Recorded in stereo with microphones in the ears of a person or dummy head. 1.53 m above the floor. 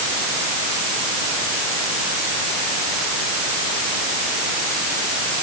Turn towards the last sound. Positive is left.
No sound to turn to.